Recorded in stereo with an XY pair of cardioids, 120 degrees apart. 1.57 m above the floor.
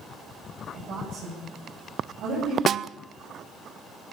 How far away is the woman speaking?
About 9.5 m.